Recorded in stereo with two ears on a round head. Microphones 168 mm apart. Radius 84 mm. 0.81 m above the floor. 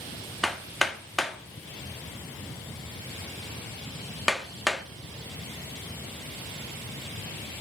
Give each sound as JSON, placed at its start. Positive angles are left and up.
{"t": 0.4, "sound": "hammering", "side_deg": 0, "distance_m": 1.3}